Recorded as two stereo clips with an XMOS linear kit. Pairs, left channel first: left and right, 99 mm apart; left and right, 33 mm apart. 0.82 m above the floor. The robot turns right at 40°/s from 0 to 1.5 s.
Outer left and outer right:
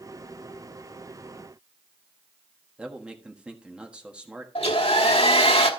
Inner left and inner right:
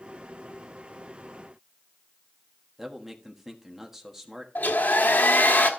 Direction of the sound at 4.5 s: 80° left.